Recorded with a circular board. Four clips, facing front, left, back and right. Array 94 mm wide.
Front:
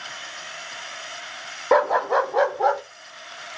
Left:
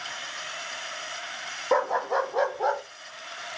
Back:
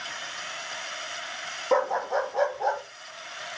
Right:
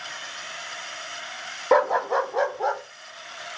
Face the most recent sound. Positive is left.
turn(degrees=0)